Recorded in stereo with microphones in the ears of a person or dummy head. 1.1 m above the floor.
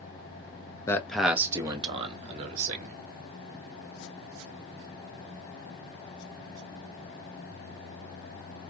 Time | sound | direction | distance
0.9 | a man speaking | 15° left (ahead or behind) | 0.6 m